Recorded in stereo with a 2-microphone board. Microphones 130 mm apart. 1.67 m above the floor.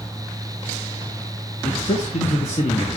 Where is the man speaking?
65° left (ahead or behind), 1.4 m.